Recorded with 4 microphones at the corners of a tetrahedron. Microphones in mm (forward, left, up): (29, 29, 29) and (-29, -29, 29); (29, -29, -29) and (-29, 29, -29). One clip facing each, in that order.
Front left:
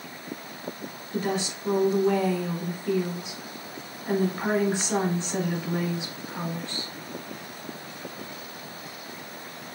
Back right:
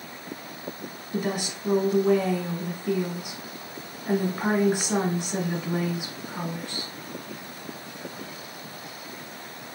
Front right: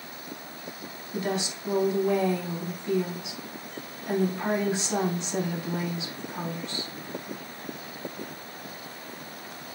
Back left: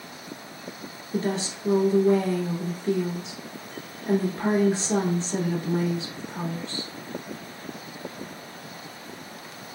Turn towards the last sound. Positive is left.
turn(degrees=155)